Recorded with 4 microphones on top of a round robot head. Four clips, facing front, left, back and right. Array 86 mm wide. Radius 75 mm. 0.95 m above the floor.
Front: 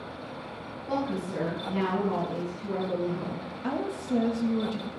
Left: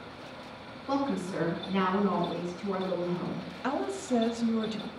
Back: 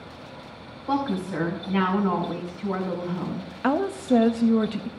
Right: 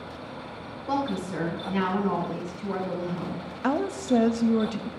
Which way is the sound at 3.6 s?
155° right.